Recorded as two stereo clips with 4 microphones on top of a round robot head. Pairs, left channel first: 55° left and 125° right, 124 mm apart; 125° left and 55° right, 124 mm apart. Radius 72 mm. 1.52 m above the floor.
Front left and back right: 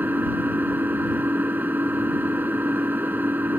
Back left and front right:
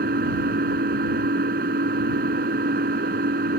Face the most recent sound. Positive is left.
turn(degrees=-50)